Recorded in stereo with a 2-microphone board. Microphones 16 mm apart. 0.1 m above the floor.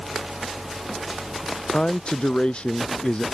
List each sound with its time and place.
1.7 s a man speaking: 70° left (ahead or behind)